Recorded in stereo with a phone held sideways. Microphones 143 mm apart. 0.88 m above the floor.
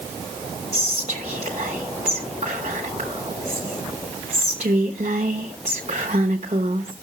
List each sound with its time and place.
0.7 s whispering: 50° right (ahead or behind), 1.0 m